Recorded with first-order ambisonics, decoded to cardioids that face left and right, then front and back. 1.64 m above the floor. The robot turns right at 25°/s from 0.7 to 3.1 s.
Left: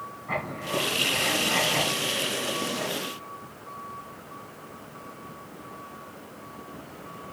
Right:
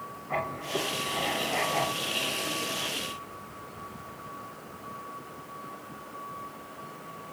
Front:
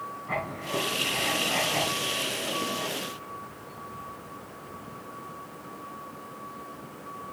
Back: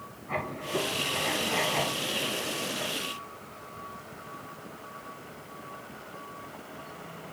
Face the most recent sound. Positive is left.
turn(degrees=125)